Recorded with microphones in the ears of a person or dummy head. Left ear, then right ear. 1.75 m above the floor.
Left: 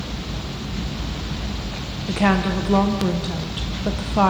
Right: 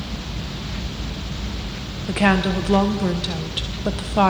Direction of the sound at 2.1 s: 10° right (ahead or behind).